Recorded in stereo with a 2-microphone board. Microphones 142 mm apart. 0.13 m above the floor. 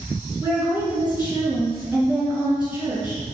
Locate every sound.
0.4 s a woman speaking: 10° right (ahead or behind), 1.8 m